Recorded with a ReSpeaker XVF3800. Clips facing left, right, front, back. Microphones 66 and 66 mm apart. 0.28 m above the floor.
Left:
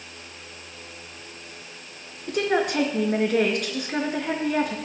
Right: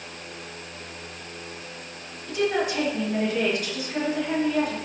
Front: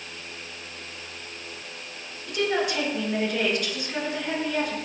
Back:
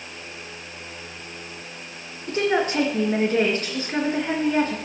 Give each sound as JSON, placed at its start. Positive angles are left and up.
{"t": 2.3, "sound": "a woman speaking", "azimuth_deg": 125, "distance_m": 3.5}